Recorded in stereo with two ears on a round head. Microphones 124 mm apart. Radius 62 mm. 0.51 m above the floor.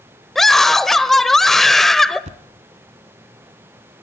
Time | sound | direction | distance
0.3 | a scream | 5° left (ahead or behind) | 1.6 m
2.2 | a thud | 55° right (ahead or behind) | 1.4 m